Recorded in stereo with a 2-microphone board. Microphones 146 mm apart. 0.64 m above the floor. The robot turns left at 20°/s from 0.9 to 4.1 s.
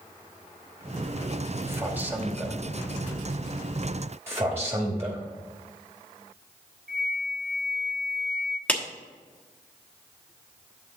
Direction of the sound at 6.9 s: 75° right (ahead or behind).